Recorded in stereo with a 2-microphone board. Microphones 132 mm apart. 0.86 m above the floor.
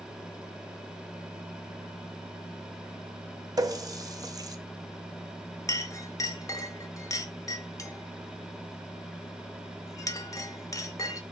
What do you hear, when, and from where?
3.6 s a running tap: 30° right (ahead or behind), 0.5 m
5.7 s a clink: 25° left (ahead or behind), 0.5 m